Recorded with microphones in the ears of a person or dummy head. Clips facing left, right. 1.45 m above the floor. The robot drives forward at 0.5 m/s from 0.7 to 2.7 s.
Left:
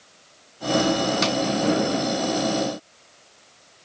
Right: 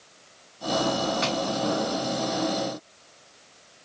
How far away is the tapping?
About 0.8 m.